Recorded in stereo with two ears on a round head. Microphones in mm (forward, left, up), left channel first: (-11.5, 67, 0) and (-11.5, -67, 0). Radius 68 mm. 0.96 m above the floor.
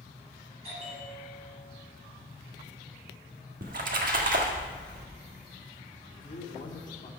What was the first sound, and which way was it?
A bell, 45° right (ahead or behind).